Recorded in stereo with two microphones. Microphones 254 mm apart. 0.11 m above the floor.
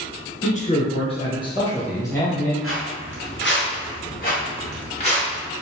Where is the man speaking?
30° left (ahead or behind), 1.4 m; by 2.5 s 10° left (ahead or behind), 2.5 m.